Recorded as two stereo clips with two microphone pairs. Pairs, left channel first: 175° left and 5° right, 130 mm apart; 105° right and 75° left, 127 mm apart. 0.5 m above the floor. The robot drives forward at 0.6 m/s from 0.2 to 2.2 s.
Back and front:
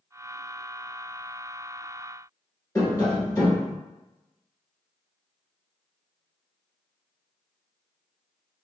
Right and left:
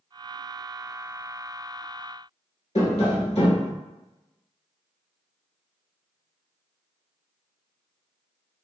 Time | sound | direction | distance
2.8 | tapping | 125° right | 1.1 m